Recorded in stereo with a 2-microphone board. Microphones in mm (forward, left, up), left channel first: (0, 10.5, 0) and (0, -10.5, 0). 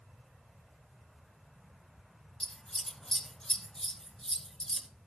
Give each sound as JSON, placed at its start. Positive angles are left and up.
{"t": 2.4, "sound": "scissors", "side_deg": 40, "distance_m": 1.7}